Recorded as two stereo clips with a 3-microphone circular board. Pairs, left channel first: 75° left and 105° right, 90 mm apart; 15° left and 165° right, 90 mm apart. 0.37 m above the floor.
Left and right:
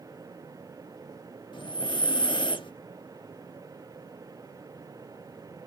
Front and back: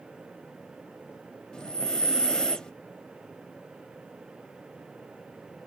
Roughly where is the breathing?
Left.